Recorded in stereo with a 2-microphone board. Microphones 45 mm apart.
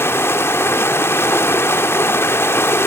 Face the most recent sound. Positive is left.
turn(degrees=70)  # may be behind; listen again after turning